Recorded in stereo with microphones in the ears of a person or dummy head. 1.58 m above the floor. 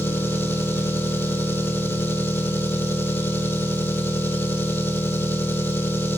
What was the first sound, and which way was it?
An engine running, 10° left (ahead or behind).